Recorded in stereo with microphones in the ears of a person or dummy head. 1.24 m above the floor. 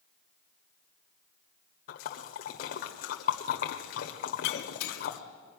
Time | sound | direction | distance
1.9 | a splash | 40° left (ahead or behind) | 1.3 m
4.4 | breaking glass | 60° left (ahead or behind) | 1.8 m